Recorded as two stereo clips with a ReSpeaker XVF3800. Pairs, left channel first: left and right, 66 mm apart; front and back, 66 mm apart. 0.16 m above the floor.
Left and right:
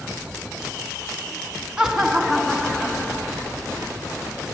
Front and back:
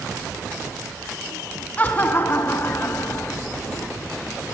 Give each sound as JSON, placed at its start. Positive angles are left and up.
{"t": 1.8, "sound": "laughter", "azimuth_deg": -25, "distance_m": 1.1}